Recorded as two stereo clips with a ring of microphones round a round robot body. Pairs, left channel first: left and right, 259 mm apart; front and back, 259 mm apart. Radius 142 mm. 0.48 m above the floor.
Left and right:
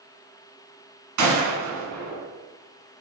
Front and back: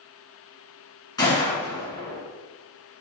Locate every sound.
1.2 s a gunshot: 75° right, 1.2 m